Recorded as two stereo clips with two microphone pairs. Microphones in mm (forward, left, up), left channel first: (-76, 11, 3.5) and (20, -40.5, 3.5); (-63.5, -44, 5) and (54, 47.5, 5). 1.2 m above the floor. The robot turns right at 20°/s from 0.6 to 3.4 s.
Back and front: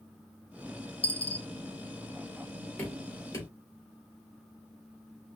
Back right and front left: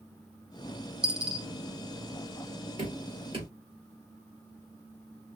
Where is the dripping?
80° left, 3 m; by 3.5 s 90° left, 3 m.